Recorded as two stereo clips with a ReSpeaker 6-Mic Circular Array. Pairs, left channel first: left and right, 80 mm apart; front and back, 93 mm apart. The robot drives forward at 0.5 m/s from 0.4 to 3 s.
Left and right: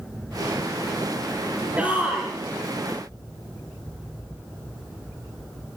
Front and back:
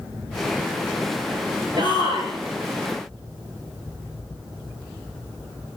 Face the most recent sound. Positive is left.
turn(degrees=-165)